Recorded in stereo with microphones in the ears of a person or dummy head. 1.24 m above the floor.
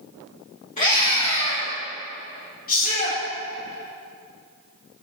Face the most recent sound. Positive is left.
turn(degrees=40)  # may be behind; listen again after turning